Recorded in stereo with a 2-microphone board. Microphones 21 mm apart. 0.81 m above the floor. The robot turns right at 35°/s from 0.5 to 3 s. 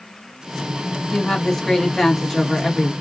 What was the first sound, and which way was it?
A woman speaking, 125° left.